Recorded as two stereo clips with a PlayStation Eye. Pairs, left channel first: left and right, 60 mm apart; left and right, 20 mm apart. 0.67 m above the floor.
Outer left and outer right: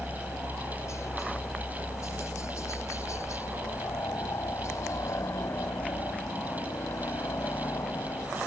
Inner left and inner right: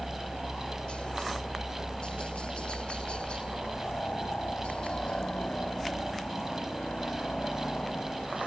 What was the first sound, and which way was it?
A helicopter, 55° left (ahead or behind).